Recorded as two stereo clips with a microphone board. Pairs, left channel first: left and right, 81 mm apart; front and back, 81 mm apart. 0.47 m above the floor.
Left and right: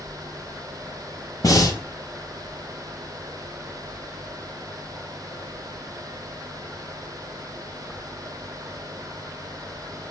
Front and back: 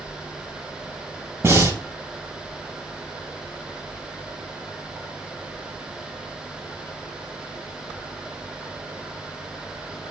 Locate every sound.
1.4 s breathing: 125° left, 3.5 m